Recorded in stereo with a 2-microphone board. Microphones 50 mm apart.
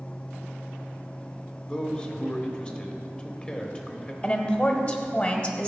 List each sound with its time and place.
1.7 s a man speaking: 20° left (ahead or behind), 0.9 m
4.2 s a woman speaking: 30° left (ahead or behind), 1.1 m